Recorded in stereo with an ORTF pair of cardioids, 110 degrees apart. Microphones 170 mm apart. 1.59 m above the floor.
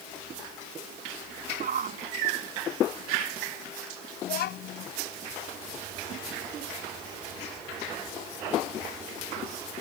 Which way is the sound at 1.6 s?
55° right.